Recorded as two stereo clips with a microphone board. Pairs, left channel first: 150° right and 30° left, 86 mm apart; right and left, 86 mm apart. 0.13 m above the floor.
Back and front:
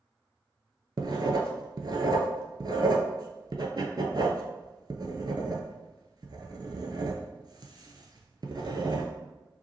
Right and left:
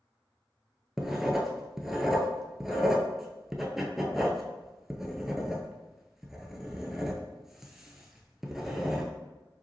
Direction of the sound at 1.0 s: 5° left.